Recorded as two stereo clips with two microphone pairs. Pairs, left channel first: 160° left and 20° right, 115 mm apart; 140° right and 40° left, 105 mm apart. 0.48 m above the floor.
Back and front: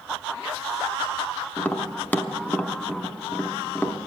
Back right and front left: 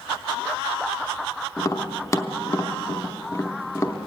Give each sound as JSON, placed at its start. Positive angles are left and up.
{"t": 1.6, "sound": "tapping", "azimuth_deg": -135, "distance_m": 0.7}